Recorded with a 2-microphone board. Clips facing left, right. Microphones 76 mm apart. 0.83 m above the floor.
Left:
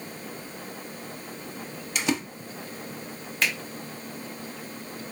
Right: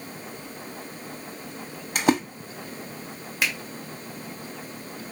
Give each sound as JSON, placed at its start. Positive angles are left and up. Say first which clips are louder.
{"t": 1.9, "sound": "a splash", "louder": "right 6 dB", "side_deg": -45, "distance_m": 0.8}
{"t": 3.4, "sound": "a finger snap", "louder": "even", "side_deg": -10, "distance_m": 1.5}